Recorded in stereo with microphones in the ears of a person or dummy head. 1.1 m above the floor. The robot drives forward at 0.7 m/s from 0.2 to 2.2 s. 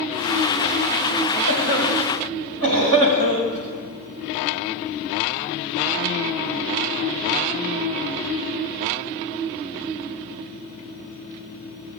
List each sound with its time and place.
1.5 s a cough: 70° right (ahead or behind), 5 m; by 3.6 s 75° right (ahead or behind), 5 m